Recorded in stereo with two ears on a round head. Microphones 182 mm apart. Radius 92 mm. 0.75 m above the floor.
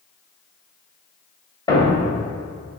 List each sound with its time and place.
1.7 s a thud: 20° left (ahead or behind), 1.6 m